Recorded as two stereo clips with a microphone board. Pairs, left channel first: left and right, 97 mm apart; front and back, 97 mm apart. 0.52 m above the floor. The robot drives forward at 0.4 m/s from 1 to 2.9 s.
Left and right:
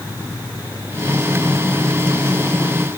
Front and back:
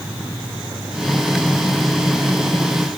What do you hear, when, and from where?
Only background noise.